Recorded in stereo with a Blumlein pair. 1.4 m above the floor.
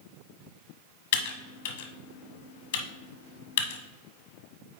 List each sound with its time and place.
1.1 s typing on a keyboard: 50° left, 1.2 m